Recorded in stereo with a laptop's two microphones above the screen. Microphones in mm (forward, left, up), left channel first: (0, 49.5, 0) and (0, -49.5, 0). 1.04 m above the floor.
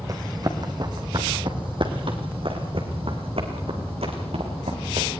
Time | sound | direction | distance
0.1 | running footsteps | 40° right (ahead or behind) | 3 m